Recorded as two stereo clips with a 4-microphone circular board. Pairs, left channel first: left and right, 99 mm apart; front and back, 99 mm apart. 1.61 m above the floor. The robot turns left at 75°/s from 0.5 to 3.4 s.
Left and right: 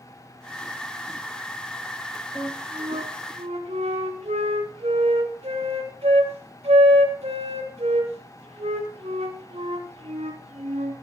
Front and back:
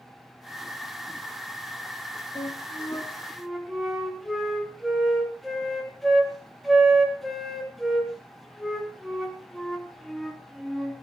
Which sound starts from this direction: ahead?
A flute, at 2.4 s.